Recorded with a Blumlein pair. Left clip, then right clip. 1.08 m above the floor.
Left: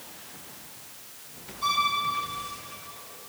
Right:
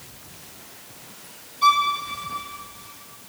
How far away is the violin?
About 1.6 m.